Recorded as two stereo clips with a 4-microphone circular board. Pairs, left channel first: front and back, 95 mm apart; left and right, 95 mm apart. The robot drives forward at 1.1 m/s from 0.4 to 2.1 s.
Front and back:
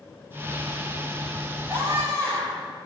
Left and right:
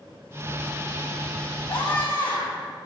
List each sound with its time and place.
1.7 s a scream: 115° left, 6.5 m; by 2.7 s 120° left, 6.5 m